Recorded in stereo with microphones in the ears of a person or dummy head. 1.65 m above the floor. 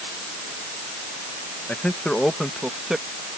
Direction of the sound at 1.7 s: 5° left (ahead or behind).